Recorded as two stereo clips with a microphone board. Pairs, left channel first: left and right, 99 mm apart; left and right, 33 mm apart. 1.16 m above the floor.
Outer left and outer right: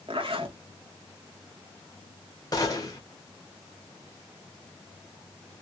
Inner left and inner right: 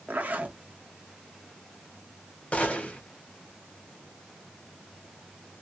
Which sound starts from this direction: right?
A zipper, at 0.1 s.